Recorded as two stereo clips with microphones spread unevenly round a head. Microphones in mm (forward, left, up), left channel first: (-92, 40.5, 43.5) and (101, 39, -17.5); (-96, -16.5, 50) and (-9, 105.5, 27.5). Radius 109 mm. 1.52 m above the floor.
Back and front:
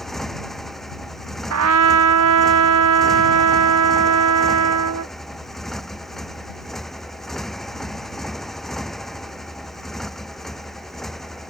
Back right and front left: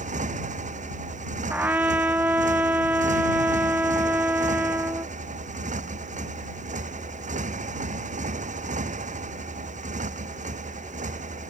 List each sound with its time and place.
0.0 s a motorcycle: 90° left
1.5 s a trumpet: 30° right